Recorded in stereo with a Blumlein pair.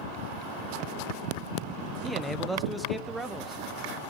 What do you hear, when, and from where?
2.0 s a man speaking: straight ahead, 1.0 m; by 4.0 s 10° right, 2 m